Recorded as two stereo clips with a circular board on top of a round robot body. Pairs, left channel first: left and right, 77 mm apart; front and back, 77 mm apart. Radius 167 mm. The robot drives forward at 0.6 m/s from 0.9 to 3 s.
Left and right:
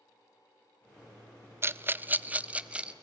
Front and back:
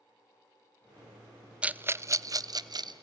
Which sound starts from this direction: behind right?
A rattle, at 1.6 s.